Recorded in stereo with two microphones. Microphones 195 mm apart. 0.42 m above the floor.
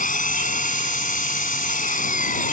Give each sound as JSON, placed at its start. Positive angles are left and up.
{"t": 0.0, "sound": "an engine running", "side_deg": 45}